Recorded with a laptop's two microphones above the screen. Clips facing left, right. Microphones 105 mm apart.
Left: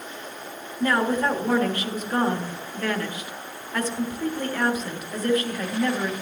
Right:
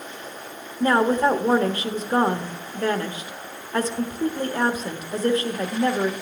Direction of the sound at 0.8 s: 30° right (ahead or behind).